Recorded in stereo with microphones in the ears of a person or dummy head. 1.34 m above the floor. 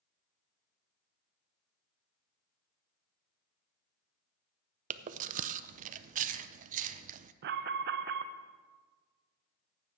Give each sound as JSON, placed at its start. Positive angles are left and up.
{"t": 4.9, "sound": "chewing", "side_deg": -50, "distance_m": 0.5}
{"t": 7.4, "sound": "an alarm", "side_deg": -65, "distance_m": 0.6}